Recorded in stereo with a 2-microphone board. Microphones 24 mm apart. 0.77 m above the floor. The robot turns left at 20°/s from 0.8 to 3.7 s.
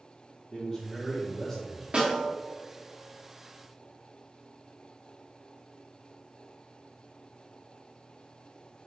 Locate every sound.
0.5 s a man speaking: 30° left (ahead or behind), 1.0 m; by 1.8 s 10° left (ahead or behind), 1.0 m
1.9 s a snare drum: 45° right (ahead or behind), 1.7 m; by 2.3 s 50° right (ahead or behind), 1.7 m